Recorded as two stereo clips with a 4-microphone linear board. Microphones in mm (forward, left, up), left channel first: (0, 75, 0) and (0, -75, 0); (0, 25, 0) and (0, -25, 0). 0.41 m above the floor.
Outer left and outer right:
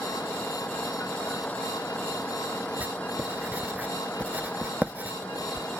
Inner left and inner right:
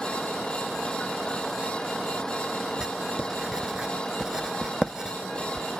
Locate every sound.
0.0 s a vehicle: 10° left (ahead or behind)
2.8 s writing: 10° right (ahead or behind)